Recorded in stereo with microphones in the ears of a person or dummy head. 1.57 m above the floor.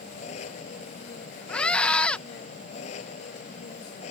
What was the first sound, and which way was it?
An engine running, 45° left (ahead or behind).